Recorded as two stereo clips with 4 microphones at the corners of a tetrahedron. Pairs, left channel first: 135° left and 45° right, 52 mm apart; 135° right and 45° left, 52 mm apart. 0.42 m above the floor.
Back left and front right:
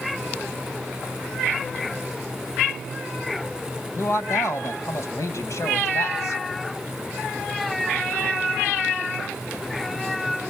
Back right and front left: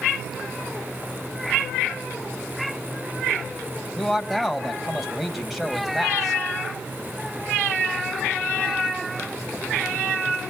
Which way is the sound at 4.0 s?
130° left.